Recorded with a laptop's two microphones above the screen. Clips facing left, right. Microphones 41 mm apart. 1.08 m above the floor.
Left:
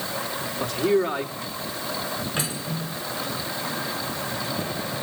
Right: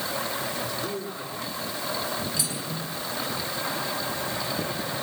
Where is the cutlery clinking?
40° left (ahead or behind), 8.5 m.